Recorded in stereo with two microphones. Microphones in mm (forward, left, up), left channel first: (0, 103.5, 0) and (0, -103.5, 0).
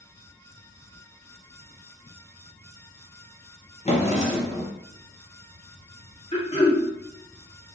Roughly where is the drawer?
Left.